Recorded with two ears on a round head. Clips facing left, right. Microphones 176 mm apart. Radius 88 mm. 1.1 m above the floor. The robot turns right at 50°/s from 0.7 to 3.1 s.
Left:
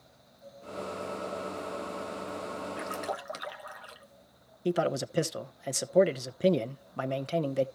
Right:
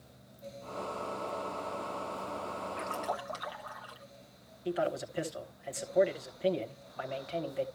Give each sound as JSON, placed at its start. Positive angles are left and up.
{"t": 2.8, "sound": "a splash", "side_deg": 10, "distance_m": 1.2}
{"t": 4.7, "sound": "a man speaking", "side_deg": 55, "distance_m": 0.9}